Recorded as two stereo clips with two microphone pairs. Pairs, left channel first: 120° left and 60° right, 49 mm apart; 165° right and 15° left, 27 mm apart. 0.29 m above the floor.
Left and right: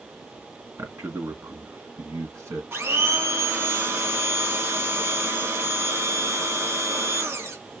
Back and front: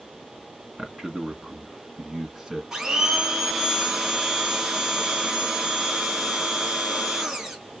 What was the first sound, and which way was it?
A man speaking, 45° right.